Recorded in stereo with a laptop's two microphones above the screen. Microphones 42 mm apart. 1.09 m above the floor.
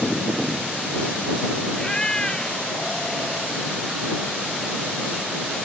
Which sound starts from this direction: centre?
A cat meowing, at 1.7 s.